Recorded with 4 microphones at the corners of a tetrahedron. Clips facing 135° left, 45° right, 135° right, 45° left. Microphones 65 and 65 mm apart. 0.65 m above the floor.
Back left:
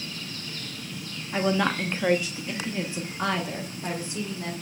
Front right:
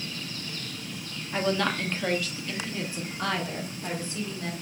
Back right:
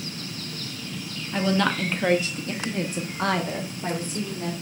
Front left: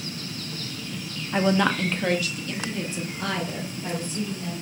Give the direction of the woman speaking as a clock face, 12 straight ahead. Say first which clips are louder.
Back left 2 dB, front left 2 dB; 10 o'clock.